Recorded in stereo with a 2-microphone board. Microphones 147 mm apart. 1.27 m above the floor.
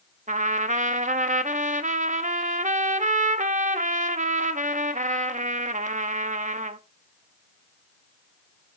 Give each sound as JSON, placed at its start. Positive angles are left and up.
{"t": 0.3, "sound": "a trumpet", "side_deg": -60, "distance_m": 0.6}